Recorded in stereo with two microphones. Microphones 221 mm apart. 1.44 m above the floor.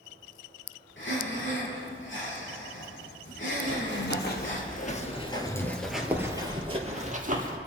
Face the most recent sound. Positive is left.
turn(degrees=-40)  # may be behind; listen again after turning